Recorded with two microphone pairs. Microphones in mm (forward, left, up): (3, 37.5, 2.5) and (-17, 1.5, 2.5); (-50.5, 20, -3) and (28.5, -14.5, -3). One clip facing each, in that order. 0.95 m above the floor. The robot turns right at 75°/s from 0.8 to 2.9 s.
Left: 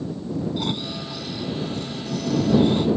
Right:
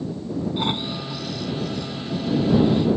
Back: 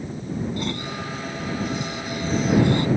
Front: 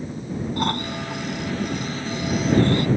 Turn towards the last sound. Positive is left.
turn(degrees=100)